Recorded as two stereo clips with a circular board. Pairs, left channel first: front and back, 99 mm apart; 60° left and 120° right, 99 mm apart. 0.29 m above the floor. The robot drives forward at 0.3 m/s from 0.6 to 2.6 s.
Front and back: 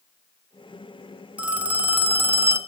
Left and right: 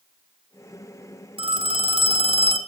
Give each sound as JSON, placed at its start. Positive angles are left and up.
{"t": 1.4, "sound": "a phone ringing", "azimuth_deg": -105, "distance_m": 1.7}